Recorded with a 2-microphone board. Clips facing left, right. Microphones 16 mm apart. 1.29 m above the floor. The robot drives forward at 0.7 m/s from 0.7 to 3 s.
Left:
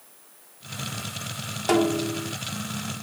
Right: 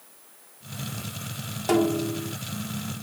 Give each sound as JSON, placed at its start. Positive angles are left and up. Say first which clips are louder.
{"t": 1.7, "sound": "a snare drum", "louder": "left 1 dB", "side_deg": 25}